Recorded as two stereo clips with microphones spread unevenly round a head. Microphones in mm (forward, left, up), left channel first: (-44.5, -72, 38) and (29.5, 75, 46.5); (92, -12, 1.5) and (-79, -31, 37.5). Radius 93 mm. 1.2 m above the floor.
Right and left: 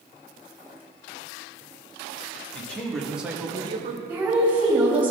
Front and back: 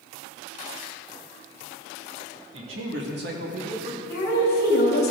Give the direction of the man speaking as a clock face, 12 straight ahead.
7 o'clock.